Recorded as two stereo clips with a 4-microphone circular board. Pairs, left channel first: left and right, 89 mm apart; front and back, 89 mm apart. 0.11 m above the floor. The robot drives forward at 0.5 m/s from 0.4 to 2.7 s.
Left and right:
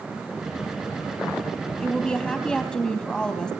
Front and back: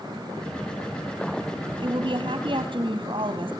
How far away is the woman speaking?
About 3 m.